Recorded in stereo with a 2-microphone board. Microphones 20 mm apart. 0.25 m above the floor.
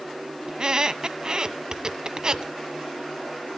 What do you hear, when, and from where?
0.5 s a squeak: 40° right (ahead or behind), 0.8 m